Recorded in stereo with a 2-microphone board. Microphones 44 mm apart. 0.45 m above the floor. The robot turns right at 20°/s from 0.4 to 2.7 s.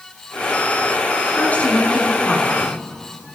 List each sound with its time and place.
1.4 s a woman speaking: 35° left (ahead or behind), 5 m; by 2.8 s 5° left (ahead or behind), 5 m